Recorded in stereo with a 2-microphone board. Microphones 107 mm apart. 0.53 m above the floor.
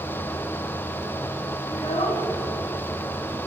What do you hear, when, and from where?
1.7 s a child speaking: 80° left, 4 m; by 3.4 s 70° left (ahead or behind), 6 m